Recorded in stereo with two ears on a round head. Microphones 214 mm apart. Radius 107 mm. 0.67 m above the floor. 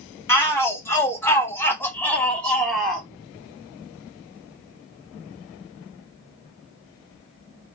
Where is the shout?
10° left (ahead or behind), 1.2 m; by 3.1 s centre (ahead or behind), 0.8 m.